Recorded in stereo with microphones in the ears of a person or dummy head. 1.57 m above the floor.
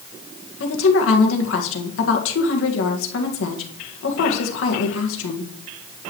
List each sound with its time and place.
0.6 s a woman speaking: 85° left, 1.7 m